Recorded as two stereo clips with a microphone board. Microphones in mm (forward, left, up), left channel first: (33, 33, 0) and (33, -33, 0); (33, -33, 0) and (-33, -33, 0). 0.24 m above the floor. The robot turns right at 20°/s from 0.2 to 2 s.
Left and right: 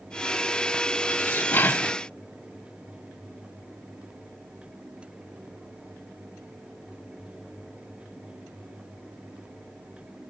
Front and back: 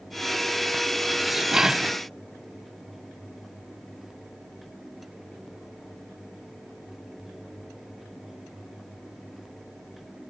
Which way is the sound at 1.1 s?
95° left.